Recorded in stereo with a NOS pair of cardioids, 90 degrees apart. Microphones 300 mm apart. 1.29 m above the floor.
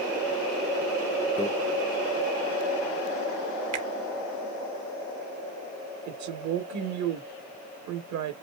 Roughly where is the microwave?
Ahead.